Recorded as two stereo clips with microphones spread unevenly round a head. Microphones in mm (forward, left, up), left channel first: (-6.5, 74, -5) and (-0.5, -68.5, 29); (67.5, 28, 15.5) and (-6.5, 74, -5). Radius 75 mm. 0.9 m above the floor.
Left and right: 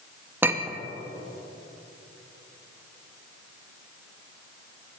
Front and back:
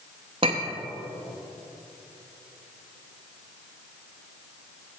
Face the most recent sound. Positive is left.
turn(degrees=-170)